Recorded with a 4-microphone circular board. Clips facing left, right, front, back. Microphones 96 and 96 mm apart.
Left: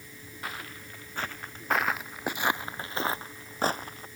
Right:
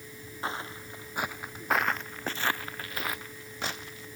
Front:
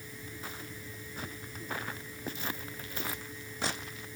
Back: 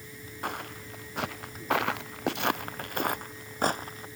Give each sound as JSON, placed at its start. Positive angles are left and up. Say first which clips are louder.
{"t": 0.4, "sound": "footsteps", "louder": "right 4 dB, back 12 dB", "azimuth_deg": -150}